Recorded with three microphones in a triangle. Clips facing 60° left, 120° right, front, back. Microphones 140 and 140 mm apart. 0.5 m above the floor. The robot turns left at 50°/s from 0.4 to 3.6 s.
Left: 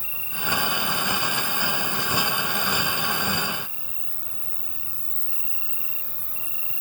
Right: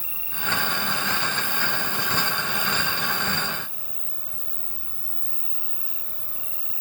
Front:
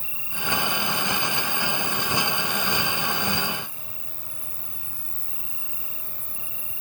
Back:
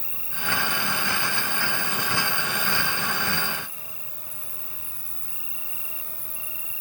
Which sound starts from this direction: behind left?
An insect, at 0.0 s.